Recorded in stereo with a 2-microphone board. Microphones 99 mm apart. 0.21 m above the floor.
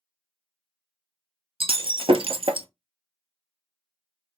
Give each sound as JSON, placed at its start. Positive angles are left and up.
{"t": 1.6, "sound": "breaking glass", "side_deg": -65, "distance_m": 0.6}